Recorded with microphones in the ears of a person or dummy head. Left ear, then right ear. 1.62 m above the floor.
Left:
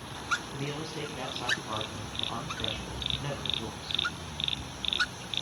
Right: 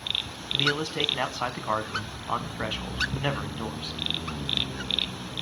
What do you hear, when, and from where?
0.5 s a man speaking: 50° right (ahead or behind), 1.5 m